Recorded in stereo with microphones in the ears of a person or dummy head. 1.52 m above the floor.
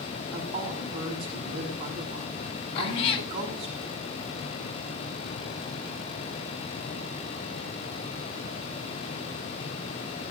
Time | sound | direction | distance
0.3 | a woman speaking | 30° right (ahead or behind) | 6 m
2.8 | a cat meowing | 25° left (ahead or behind) | 0.7 m